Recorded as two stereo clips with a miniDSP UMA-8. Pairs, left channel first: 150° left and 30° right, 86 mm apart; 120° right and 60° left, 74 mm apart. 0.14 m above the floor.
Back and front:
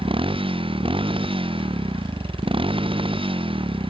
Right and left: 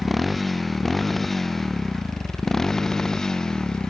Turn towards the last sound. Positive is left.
turn(degrees=-35)